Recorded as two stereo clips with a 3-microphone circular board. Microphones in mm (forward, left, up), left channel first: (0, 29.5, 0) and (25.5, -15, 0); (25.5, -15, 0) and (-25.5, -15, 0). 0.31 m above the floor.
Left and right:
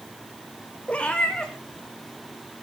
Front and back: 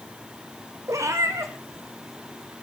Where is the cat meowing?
175° right, 2.5 m; by 2.5 s 160° right, 3 m.